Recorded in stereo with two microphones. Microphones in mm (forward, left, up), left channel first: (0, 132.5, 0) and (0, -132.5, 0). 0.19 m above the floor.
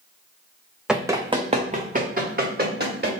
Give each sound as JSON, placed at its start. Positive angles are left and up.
{"t": 0.9, "sound": "running footsteps", "side_deg": 0, "distance_m": 0.5}